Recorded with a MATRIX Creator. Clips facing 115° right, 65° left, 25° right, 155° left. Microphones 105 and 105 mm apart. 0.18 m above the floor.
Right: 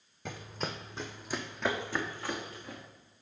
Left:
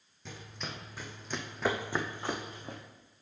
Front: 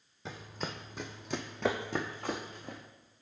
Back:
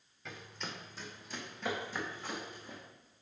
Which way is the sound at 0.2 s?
80° right.